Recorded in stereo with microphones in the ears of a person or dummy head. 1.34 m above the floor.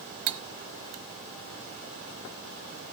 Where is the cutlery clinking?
55° right (ahead or behind), 0.7 m.